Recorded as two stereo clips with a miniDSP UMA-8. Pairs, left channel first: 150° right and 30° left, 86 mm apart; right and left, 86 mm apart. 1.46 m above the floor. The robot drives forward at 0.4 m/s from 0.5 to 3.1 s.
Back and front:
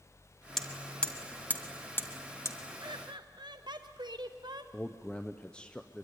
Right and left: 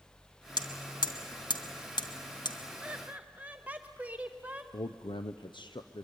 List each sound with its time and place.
0.6 s hammering: 65° right, 1.5 m; by 2.6 s 105° right, 1.4 m
2.8 s laughter: 15° left, 0.9 m; by 4.6 s 20° left, 0.8 m
4.7 s a man speaking: 75° right, 0.6 m